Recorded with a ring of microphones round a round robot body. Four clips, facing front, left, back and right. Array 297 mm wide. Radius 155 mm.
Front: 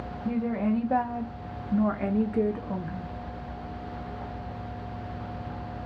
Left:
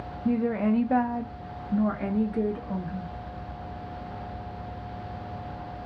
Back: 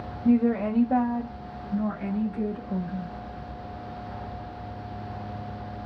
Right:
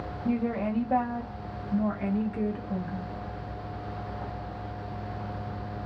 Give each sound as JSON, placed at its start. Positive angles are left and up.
{"t": 0.2, "sound": "a woman speaking", "azimuth_deg": 145, "distance_m": 0.8}